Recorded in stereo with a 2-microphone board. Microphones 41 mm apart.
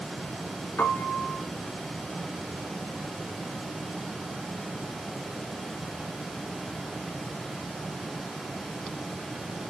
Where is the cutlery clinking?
I don't hear cutlery clinking.